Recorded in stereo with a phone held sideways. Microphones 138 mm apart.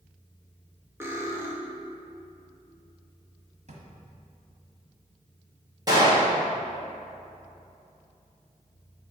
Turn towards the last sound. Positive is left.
turn(degrees=-30)  # may be behind; listen again after turning